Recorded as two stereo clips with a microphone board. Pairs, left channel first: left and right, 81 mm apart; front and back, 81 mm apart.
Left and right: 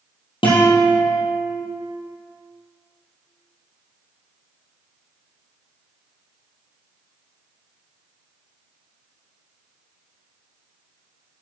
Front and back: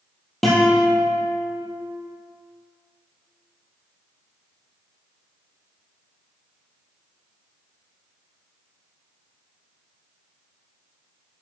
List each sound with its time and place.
0.4 s a guitar: 85° left, 3.5 m